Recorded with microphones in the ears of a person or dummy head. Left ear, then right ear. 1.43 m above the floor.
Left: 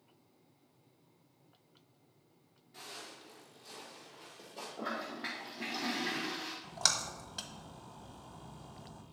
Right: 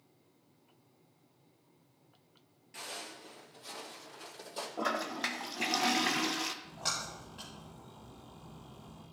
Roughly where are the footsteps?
Right.